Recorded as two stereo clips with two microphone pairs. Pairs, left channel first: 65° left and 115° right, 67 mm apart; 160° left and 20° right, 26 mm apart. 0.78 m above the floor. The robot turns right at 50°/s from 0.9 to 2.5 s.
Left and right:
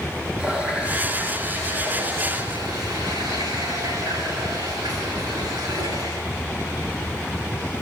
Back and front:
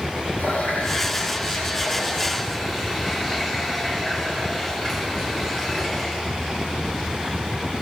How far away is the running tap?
About 7 m.